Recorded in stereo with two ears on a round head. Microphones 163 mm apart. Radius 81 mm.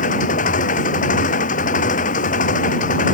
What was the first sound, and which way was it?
An engine running, 45° left (ahead or behind).